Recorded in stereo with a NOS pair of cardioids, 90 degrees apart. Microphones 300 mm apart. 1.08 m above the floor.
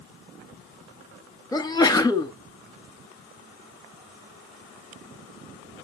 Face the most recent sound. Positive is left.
turn(degrees=15)